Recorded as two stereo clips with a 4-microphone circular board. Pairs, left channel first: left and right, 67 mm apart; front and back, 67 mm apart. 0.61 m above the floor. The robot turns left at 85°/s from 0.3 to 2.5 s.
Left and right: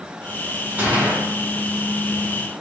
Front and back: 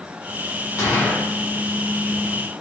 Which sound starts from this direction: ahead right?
A gunshot, at 0.8 s.